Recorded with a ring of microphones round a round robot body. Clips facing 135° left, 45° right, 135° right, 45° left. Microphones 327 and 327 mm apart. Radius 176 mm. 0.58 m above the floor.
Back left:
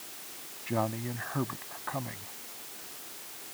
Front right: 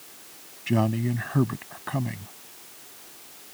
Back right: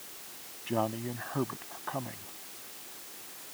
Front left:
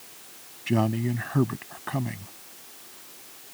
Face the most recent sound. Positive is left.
turn(degrees=-5)